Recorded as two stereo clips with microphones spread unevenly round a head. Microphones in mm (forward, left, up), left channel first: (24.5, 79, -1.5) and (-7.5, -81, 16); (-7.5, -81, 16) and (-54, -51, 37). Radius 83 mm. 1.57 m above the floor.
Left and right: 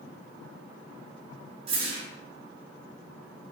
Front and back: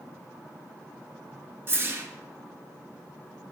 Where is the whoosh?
160° right, 0.7 m.